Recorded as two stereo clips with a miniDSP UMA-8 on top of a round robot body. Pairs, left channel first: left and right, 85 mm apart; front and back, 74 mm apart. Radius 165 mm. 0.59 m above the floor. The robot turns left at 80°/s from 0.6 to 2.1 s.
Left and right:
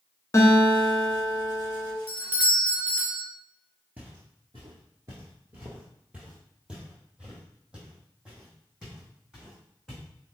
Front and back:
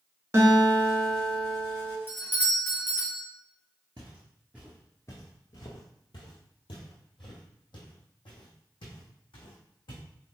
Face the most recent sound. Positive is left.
turn(degrees=-5)